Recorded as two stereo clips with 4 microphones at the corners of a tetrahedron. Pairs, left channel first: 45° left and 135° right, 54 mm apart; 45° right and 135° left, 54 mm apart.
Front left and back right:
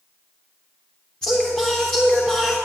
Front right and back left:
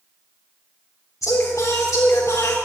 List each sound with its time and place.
1.2 s singing: 35° right, 3.5 m